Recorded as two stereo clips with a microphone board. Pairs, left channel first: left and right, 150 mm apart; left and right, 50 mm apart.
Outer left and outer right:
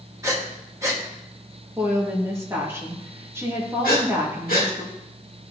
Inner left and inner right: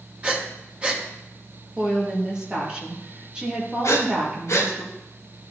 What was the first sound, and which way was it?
Breathing, 20° right (ahead or behind).